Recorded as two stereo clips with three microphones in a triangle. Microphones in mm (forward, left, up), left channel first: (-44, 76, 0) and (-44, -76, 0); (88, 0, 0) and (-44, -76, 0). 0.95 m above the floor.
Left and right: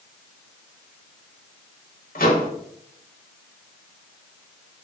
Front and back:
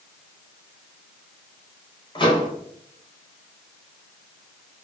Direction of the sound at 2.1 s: 85° left.